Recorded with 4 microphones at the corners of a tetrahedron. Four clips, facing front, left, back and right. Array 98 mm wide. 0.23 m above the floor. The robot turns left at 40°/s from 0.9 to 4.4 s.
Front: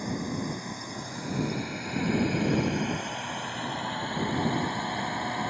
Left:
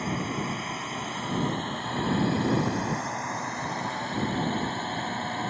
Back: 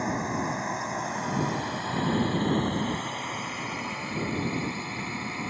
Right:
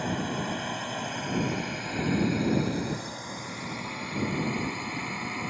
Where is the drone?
175° right; by 5.5 s 45° left.